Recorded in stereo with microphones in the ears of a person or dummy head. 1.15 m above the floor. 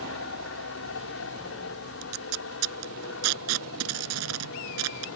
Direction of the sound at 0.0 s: 65° left (ahead or behind).